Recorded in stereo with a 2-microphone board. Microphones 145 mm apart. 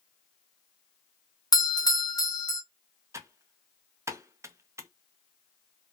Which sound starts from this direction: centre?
Typing on a keyboard, at 3.1 s.